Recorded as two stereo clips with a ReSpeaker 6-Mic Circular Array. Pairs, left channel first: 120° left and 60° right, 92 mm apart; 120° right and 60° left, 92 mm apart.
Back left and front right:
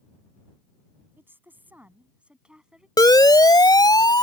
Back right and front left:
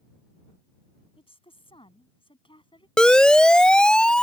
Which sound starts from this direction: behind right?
A woman speaking, at 1.2 s.